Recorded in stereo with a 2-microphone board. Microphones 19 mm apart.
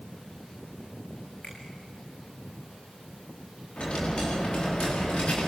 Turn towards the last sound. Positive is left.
turn(degrees=70)  # may be behind; listen again after turning